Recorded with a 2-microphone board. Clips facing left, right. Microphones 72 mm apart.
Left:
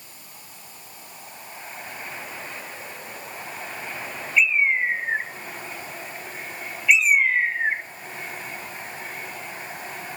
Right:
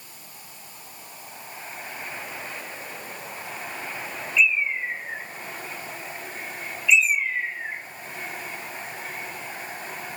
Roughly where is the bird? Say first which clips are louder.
Left 3 dB; left.